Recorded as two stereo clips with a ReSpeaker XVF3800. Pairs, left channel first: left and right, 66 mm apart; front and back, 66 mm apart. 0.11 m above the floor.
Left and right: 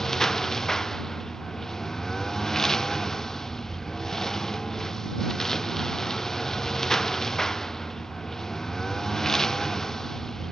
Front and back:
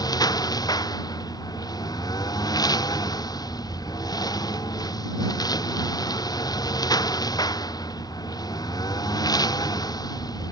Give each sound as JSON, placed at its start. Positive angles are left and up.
{"t": 0.0, "sound": "a lawn mower", "azimuth_deg": 5}